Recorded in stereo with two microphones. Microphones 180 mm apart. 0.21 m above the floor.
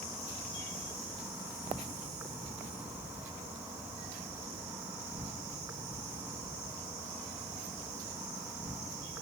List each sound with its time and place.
0.0 s an insect: 15° right (ahead or behind), 3.5 m